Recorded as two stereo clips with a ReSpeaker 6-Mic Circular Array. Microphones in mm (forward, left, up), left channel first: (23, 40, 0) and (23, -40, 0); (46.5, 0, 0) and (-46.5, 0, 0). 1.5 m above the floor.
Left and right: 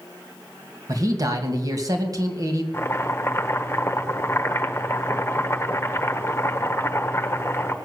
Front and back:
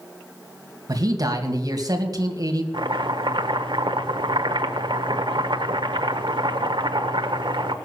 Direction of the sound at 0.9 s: 130° right.